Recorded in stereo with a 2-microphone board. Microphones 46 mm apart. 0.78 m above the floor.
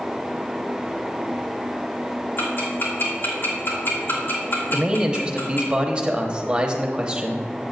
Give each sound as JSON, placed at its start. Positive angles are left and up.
{"t": 2.4, "sound": "ticking", "side_deg": 50, "distance_m": 2.0}
{"t": 4.7, "sound": "a man speaking", "side_deg": -20, "distance_m": 1.0}